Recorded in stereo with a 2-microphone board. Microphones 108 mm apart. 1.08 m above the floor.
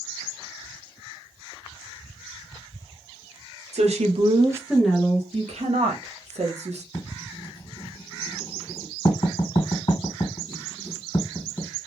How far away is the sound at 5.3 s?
About 1.0 m.